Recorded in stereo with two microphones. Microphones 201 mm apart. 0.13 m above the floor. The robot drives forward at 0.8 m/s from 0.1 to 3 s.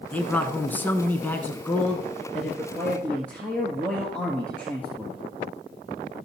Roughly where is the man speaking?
Centre.